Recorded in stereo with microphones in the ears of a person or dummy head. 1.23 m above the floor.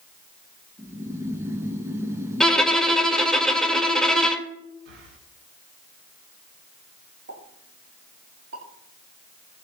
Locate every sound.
0.8 s snoring: 15° right (ahead or behind), 1.4 m
2.4 s a violin: 5° left (ahead or behind), 1.8 m
4.8 s breathing: 85° right, 5.5 m
7.3 s a pop: 80° right, 8 m